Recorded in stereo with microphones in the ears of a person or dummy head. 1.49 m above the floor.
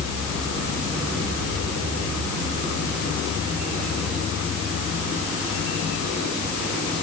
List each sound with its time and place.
Only background noise.